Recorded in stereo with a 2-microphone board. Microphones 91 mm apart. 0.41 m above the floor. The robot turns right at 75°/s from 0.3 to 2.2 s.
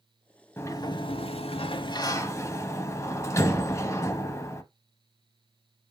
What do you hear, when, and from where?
0.6 s a sliding door: 25° left, 0.8 m; by 4.6 s 150° left, 0.8 m